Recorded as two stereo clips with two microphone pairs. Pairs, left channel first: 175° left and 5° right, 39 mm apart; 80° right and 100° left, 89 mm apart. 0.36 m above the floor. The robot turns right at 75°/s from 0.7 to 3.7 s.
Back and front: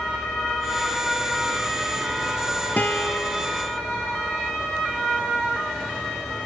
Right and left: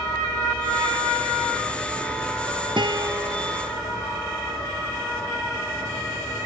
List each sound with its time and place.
2.8 s a guitar: 125° left; by 3.5 s 175° right